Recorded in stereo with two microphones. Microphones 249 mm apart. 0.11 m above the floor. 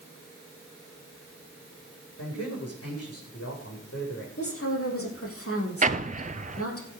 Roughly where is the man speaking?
Left.